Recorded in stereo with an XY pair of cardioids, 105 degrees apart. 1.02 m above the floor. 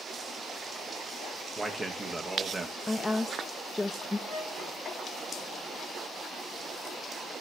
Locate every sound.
1.6 s a man speaking: 25° right, 0.8 m
2.9 s a woman speaking: 10° left, 0.5 m
4.3 s a flute: 50° right, 2.5 m